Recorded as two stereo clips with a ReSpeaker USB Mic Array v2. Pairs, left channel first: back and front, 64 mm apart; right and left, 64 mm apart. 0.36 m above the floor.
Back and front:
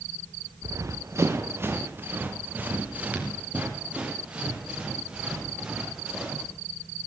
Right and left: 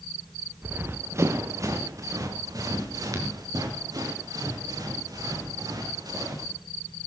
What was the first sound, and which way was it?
Running footsteps, 30° left.